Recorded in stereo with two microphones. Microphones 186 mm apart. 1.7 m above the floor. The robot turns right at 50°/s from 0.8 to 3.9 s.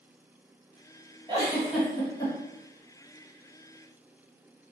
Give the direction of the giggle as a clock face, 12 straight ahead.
1 o'clock.